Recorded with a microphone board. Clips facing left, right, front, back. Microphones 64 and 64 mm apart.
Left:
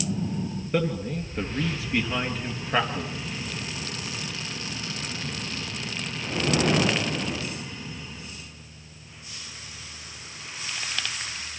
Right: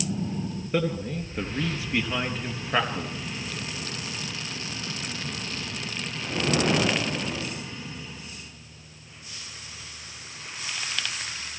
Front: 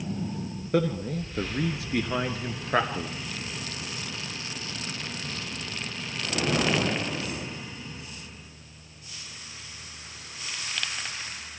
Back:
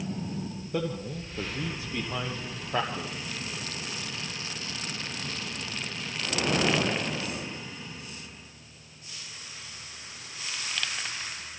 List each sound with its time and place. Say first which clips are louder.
0.7 s a man speaking: even, front 6 dB; straight ahead, 3.5 m